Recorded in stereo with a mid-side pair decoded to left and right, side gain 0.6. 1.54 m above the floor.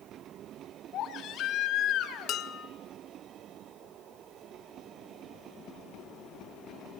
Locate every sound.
0.9 s a baby crying: 60° left, 3 m
2.3 s dishes clattering: 60° left, 1.9 m